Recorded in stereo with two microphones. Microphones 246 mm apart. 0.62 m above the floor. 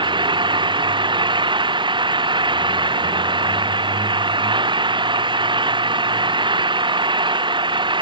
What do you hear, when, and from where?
0.0 s an engine running: 20° right (ahead or behind)